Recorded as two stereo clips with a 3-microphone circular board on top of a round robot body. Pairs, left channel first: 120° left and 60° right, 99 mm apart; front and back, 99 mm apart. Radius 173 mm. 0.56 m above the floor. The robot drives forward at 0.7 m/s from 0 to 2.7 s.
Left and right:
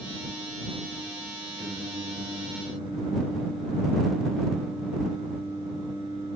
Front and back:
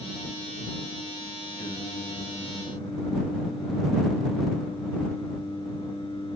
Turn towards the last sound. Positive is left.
turn(degrees=-25)